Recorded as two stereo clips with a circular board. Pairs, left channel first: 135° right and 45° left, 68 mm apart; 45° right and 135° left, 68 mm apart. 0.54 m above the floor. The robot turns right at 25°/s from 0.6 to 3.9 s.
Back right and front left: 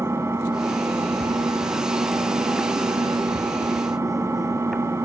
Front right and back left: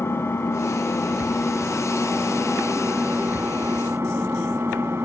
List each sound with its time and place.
0.0 s an engine running: 5° left, 3 m; by 5.0 s 85° left, 3 m